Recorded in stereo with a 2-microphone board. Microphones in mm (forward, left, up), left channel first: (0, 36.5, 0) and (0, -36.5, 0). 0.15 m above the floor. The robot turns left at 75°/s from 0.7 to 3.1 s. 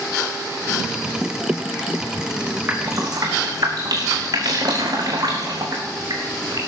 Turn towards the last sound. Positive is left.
turn(degrees=-60)  # may be behind; listen again after turning